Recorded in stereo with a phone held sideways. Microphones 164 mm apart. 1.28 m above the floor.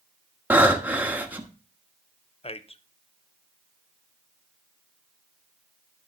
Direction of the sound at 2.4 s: 35° left (ahead or behind).